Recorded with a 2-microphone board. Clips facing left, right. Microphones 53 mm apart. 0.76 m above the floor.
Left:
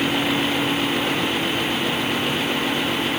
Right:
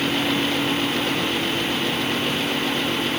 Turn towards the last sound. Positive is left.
No sound to turn to.